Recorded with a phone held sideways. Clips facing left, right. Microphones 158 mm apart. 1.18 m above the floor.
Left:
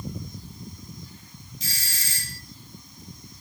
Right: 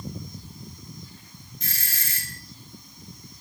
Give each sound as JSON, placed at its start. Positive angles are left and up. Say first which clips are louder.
{"t": 1.6, "sound": "a doorbell", "louder": "even", "side_deg": -55, "distance_m": 2.5}